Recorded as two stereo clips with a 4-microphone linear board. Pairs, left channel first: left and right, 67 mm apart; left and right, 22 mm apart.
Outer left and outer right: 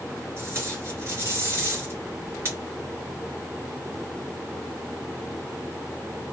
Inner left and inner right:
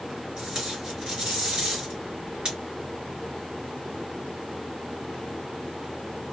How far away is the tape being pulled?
About 2.5 m.